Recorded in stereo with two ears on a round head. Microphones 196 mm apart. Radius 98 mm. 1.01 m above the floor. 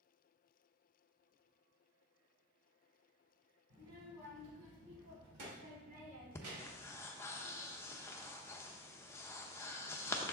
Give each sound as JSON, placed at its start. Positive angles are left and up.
{"t": 3.7, "sound": "a child speaking", "side_deg": -85, "distance_m": 3.5}
{"t": 6.3, "sound": "breathing", "side_deg": 15, "distance_m": 0.7}